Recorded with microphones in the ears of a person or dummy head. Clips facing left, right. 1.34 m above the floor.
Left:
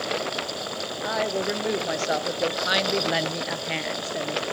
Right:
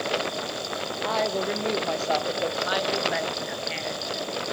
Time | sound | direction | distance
1.0 | a woman speaking | 5° left (ahead or behind) | 1.7 m